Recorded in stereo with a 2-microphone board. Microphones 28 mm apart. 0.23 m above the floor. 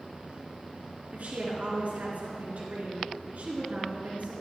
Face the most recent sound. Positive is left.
turn(degrees=-65)  # may be behind; listen again after turning